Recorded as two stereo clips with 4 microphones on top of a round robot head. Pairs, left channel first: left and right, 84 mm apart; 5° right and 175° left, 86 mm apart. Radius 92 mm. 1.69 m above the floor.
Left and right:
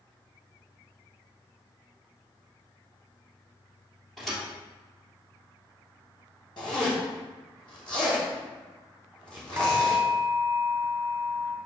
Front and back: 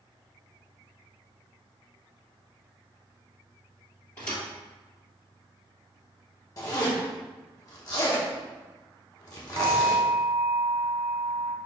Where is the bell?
150° right, 1.1 m.